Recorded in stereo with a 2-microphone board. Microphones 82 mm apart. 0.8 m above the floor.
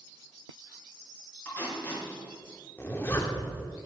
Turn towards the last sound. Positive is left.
turn(degrees=25)  # may be behind; listen again after turning